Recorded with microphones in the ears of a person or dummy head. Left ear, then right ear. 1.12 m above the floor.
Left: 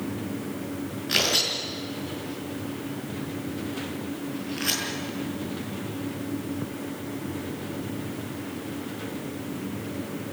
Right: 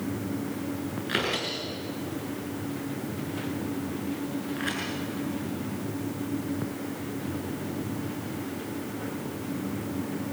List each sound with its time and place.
1.1 s tearing paper: 25° right (ahead or behind), 7.5 m